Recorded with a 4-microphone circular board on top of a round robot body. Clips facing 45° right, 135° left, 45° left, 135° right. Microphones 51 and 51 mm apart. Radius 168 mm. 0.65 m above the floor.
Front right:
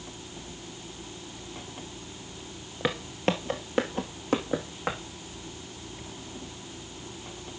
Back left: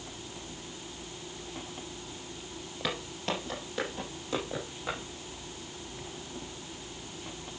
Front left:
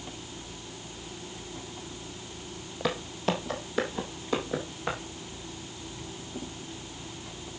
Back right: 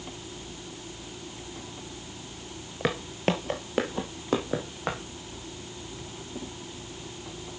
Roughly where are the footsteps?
Right.